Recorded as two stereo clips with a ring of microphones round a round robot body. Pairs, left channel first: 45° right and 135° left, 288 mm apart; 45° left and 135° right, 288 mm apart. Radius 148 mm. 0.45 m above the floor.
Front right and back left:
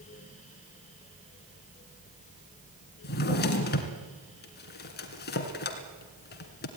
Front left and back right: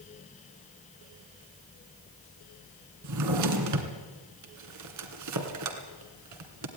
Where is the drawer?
105° right, 2 m.